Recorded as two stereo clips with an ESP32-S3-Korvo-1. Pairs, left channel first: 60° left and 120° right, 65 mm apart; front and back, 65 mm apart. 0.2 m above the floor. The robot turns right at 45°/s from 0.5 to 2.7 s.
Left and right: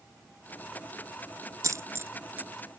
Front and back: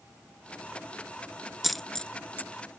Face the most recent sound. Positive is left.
turn(degrees=-45)